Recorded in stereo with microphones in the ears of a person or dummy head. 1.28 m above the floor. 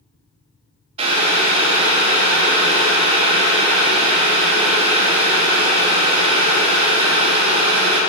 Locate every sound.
1.0 s boiling: 40° right (ahead or behind), 1.6 m